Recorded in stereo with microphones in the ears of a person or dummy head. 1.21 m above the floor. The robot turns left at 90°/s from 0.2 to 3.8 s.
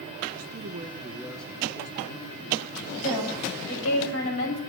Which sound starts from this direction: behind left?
A woman speaking, at 3.0 s.